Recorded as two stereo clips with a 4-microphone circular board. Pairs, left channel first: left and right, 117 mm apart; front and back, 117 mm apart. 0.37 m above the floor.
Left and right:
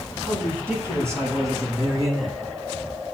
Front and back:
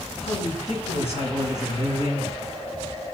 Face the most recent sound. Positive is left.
turn(degrees=-35)